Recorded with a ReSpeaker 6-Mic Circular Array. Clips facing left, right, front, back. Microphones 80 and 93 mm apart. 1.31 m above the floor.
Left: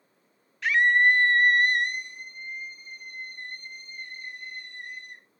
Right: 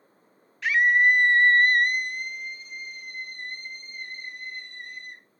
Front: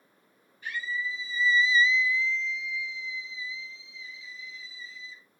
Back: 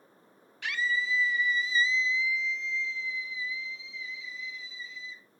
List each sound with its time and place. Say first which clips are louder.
0.6 s a scream: right 1 dB, back 3 dB; straight behind, 1.3 m; by 5.2 s 45° right, 2.5 m